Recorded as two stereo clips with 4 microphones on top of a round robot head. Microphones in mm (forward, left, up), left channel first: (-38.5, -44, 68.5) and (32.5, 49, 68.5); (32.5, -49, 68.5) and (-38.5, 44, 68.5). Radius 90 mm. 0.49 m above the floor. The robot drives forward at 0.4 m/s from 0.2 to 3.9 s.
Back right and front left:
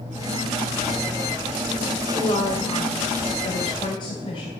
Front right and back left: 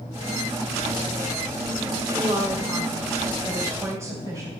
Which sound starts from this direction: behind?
A woman speaking, at 2.1 s.